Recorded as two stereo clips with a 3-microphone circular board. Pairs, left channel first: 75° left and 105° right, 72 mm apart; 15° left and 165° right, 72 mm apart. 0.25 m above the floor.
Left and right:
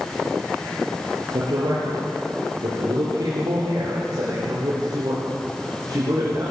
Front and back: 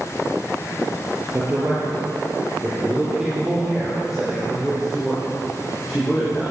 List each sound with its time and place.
1.3 s a man speaking: 105° right, 6 m; by 6.5 s 70° right, 10.5 m